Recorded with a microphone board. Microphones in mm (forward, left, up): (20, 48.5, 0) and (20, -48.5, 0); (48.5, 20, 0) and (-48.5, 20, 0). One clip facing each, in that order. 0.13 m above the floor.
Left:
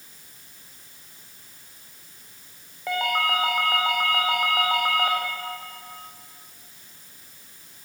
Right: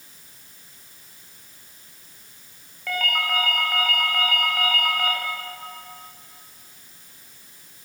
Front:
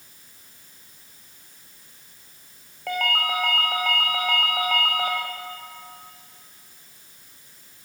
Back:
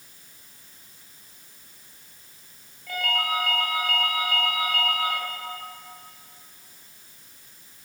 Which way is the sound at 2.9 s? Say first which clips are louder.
Left 2 dB, front 2 dB; 20° left.